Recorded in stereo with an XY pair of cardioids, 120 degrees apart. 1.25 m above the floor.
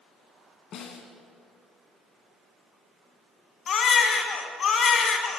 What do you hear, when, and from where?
0.7 s a snare drum: 65° left, 1.2 m
3.7 s a baby crying: 50° left, 0.9 m